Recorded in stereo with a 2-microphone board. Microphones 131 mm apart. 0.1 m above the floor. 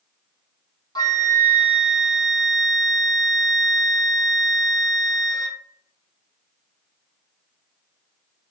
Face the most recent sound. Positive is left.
turn(degrees=30)  # may be behind; listen again after turning